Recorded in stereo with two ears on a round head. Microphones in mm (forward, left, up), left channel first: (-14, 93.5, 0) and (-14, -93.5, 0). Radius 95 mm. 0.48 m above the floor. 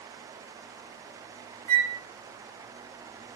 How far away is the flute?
About 3 m.